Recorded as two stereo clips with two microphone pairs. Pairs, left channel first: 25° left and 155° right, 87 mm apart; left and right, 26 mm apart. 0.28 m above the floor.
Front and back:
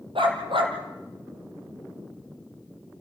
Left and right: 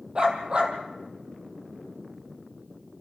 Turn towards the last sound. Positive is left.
turn(degrees=-145)